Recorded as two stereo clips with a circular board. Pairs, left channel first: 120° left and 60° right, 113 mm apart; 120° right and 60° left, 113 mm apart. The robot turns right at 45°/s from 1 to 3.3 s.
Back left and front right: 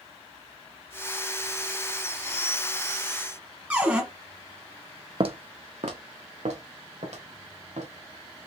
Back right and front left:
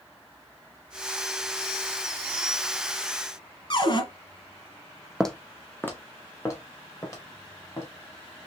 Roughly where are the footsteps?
Ahead right.